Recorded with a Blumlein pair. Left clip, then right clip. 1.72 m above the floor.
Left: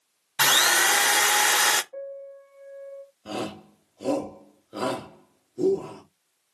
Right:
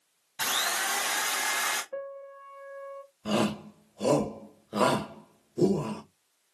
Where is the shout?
40° right, 2 m.